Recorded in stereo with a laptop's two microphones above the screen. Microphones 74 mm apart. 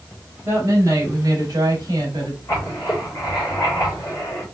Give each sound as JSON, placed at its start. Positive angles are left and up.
{"t": 0.5, "sound": "a woman speaking", "side_deg": -40, "distance_m": 2.0}
{"t": 2.5, "sound": "writing", "side_deg": 55, "distance_m": 2.5}